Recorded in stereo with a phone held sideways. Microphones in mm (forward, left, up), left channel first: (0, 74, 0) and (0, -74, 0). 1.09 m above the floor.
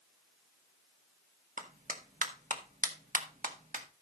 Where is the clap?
65° right (ahead or behind), 1.5 m.